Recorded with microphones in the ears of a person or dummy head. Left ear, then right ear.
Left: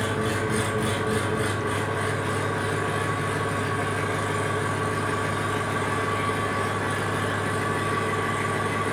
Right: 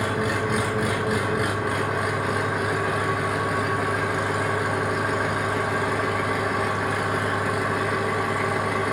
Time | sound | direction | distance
0.0 | an engine running | 15° right (ahead or behind) | 0.9 m